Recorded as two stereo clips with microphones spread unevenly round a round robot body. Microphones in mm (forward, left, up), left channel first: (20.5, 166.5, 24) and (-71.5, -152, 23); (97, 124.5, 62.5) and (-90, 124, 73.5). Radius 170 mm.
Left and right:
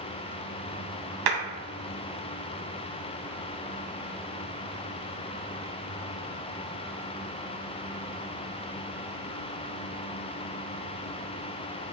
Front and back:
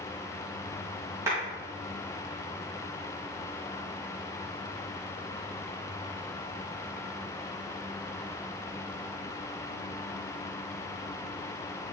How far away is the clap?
About 1.9 m.